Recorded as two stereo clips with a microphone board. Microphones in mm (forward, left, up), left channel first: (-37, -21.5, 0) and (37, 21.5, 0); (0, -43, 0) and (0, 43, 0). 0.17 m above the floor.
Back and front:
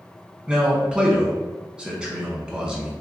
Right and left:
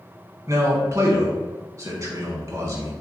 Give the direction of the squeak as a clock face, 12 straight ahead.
I don't hear a squeak.